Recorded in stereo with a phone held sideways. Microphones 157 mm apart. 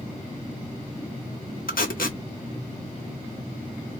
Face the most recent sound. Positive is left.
turn(degrees=75)  # may be behind; listen again after turning